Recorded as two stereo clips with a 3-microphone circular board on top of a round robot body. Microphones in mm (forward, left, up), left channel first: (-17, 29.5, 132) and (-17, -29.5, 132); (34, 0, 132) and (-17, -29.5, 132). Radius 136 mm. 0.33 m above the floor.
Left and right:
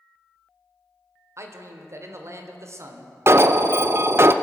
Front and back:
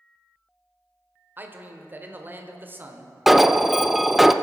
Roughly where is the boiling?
No boiling in this recording.